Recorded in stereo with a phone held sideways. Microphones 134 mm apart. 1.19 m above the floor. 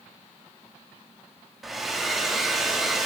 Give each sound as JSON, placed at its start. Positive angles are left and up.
{"t": 1.6, "sound": "a hair dryer", "side_deg": 0, "distance_m": 0.9}